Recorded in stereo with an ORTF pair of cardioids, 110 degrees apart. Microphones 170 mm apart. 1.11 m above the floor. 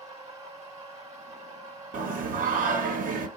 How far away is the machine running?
About 1.5 m.